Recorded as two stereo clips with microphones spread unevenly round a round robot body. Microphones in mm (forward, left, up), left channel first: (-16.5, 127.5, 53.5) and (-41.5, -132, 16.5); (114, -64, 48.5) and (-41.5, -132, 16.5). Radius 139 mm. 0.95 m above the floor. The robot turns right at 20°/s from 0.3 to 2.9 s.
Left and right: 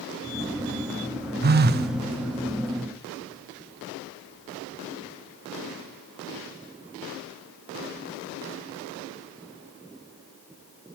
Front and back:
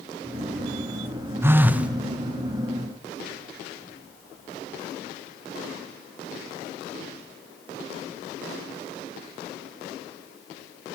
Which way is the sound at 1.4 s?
95° right.